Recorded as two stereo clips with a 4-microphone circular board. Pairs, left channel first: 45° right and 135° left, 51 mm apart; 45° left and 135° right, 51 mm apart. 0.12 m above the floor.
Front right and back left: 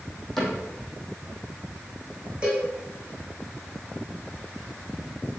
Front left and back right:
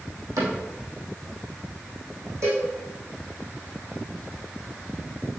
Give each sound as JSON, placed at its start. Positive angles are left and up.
{"t": 0.4, "sound": "a cupboard door", "azimuth_deg": -130, "distance_m": 4.0}
{"t": 2.4, "sound": "a cowbell", "azimuth_deg": -155, "distance_m": 3.5}